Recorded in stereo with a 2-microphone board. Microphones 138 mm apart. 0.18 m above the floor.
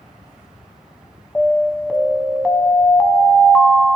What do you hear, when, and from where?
1.4 s an alarm: 10° left (ahead or behind), 0.7 m